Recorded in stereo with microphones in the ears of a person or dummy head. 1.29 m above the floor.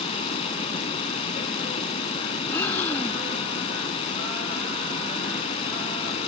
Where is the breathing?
10° left (ahead or behind).